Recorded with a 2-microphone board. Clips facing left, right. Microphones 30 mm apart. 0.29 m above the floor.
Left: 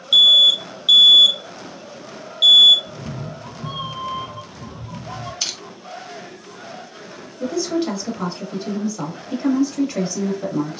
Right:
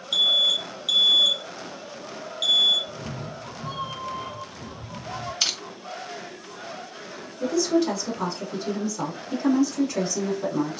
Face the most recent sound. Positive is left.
turn(degrees=35)  # may be behind; listen again after turning